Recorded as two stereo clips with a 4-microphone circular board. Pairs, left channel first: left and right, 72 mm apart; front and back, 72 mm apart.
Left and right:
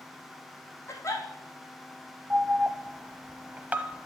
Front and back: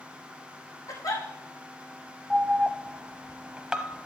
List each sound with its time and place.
0.9 s a giggle: 35° left, 3.5 m
2.3 s an alarm: 120° right, 0.8 m